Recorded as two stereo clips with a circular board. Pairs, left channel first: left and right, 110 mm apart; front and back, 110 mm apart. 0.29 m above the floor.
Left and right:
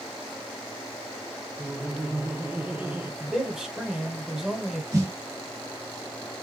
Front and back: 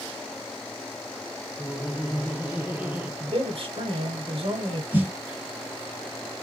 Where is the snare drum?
120° right, 1.9 m.